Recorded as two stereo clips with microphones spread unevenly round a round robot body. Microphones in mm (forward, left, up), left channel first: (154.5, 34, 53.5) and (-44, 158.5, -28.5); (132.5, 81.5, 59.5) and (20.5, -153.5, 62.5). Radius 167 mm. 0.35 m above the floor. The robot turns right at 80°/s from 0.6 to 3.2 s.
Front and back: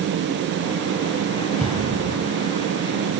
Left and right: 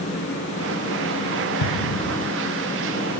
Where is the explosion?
55° left, 7 m; by 2.3 s 105° left, 7 m.